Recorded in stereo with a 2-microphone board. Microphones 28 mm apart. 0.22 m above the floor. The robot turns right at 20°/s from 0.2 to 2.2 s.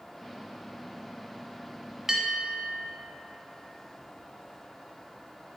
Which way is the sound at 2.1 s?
20° right (ahead or behind).